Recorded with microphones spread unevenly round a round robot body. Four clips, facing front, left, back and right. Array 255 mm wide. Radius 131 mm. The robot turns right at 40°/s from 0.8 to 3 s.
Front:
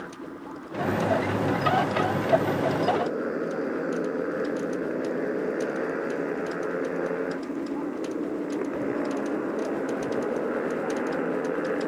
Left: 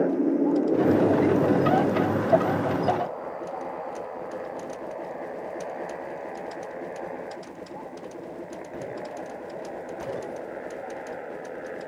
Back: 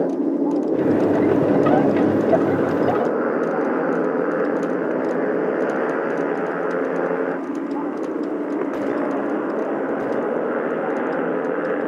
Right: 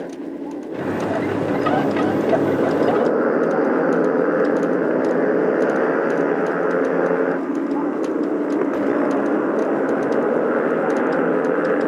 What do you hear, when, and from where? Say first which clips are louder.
0.0 s a motorcycle: left 6 dB, back 19 dB; 150° left; by 11.9 s 100° right